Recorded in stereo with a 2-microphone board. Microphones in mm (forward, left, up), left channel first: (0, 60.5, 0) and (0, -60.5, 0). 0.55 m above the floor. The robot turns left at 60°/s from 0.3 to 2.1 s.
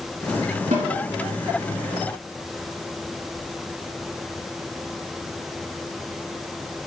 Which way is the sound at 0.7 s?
70° right (ahead or behind).